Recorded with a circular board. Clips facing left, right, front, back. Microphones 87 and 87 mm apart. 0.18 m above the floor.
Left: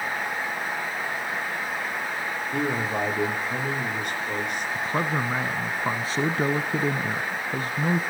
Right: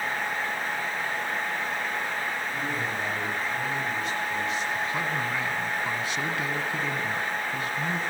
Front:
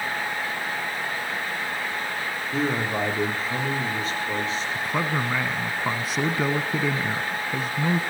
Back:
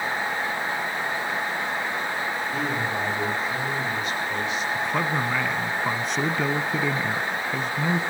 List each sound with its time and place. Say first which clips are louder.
2.5 s a man speaking: left 4 dB, front 6 dB; 55° left, 9.5 m
4.8 s a man speaking: left 3 dB, even; 85° left, 1.2 m